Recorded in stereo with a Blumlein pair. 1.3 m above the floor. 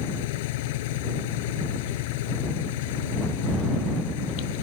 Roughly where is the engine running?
Ahead left.